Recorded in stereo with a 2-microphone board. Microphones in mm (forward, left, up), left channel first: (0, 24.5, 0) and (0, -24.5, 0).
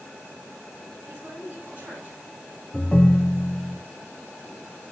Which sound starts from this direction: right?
A woman speaking, at 1.1 s.